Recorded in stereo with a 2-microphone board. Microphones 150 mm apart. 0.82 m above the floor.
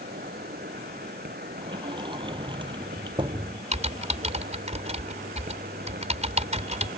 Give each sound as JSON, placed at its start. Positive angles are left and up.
{"t": 0.0, "sound": "an insect", "side_deg": -85}
{"t": 1.6, "sound": "a sliding door", "side_deg": -30}
{"t": 3.7, "sound": "typing on a keyboard", "side_deg": -45}